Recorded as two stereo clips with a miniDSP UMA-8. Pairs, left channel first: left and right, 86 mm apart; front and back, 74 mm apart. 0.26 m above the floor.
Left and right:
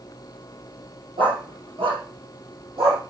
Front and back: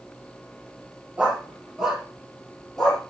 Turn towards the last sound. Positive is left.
turn(degrees=-80)